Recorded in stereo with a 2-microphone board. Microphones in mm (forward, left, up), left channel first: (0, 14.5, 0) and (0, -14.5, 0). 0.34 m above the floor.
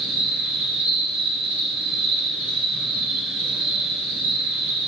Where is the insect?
55° right (ahead or behind), 1.7 m.